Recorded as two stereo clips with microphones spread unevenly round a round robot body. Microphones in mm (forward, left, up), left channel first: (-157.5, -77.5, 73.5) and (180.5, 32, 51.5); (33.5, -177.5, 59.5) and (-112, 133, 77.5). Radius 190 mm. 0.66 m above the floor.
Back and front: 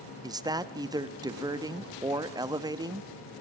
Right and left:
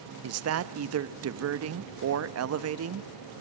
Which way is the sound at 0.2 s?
90° left.